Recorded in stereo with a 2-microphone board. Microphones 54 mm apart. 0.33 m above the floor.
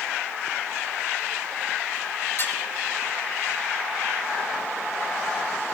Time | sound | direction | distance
2.4 | dishes clattering | 50° left (ahead or behind) | 4 m